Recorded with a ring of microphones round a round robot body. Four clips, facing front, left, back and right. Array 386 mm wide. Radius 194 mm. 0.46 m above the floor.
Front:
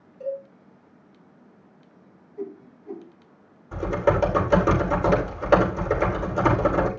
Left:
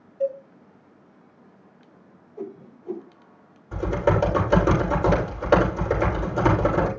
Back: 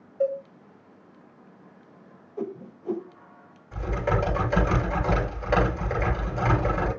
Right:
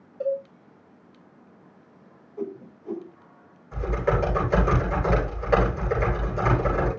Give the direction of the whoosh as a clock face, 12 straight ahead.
6 o'clock.